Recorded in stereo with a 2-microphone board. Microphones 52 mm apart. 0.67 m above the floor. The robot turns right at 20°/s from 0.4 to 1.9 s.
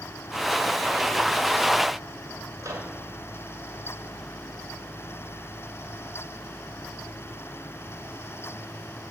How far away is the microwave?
About 2 m.